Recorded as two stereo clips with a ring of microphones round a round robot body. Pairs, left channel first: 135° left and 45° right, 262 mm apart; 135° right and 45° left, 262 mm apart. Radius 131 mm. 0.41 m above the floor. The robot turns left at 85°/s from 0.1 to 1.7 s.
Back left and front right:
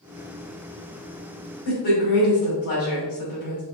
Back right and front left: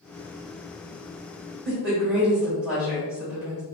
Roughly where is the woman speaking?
Behind left.